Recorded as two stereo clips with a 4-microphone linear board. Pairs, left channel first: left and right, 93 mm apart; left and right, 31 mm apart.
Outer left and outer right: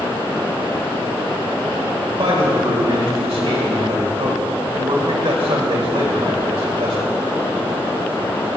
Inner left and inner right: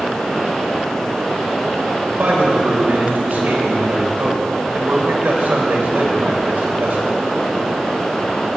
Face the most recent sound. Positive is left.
turn(degrees=-80)